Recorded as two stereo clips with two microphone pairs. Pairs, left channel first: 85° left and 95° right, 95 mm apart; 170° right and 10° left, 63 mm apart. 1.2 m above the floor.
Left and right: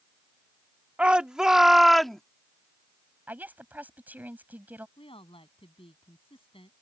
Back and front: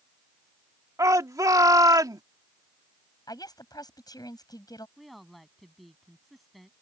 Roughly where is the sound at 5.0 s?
Left.